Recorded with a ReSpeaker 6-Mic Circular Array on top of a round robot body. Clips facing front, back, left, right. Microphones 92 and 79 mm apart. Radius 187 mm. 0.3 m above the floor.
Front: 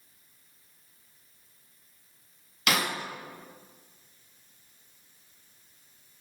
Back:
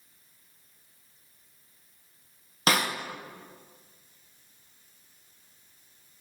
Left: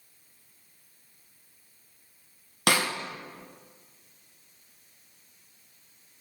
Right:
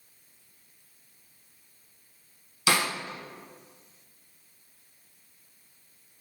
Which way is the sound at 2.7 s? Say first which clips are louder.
Back 2 dB, even; 125° left.